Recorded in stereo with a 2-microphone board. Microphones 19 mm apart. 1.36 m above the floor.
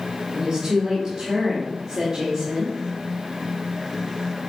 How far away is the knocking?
I don't hear knocking.